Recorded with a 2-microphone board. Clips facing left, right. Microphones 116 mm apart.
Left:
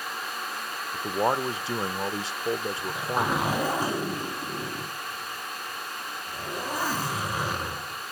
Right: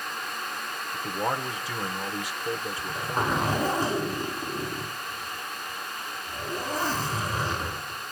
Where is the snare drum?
I don't hear a snare drum.